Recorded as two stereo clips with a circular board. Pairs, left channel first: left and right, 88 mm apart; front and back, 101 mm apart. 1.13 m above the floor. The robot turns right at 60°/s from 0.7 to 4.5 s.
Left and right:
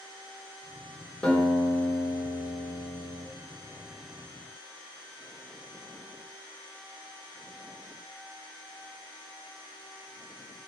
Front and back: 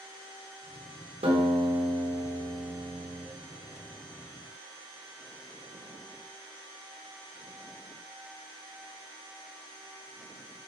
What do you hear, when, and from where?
1.2 s a guitar: 170° left, 3 m; by 3.3 s 70° right, 3 m